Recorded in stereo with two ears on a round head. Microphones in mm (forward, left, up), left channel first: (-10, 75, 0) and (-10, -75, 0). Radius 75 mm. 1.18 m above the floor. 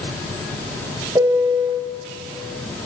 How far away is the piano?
About 1.8 m.